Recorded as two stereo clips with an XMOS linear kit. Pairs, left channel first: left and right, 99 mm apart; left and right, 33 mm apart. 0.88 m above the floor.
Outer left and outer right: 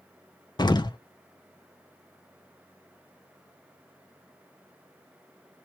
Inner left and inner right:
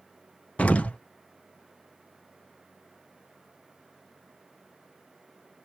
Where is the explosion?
45° left (ahead or behind), 0.5 m.